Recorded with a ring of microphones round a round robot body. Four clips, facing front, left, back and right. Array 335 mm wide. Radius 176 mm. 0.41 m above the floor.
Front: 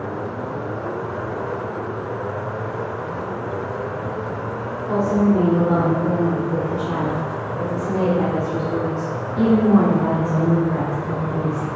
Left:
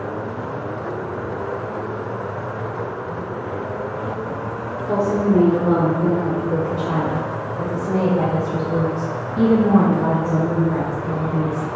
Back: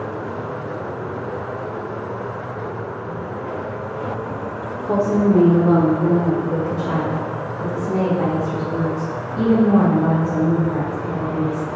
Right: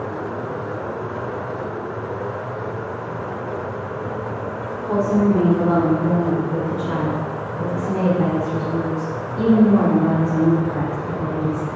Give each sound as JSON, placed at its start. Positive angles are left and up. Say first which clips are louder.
{"t": 4.8, "sound": "a woman speaking", "louder": "right 1 dB, back 1 dB", "azimuth_deg": 170, "distance_m": 1.7}